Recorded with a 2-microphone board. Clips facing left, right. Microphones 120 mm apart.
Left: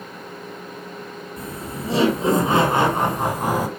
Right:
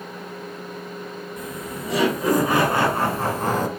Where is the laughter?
30° left (ahead or behind), 3 m; by 3.7 s 10° left (ahead or behind), 1.7 m.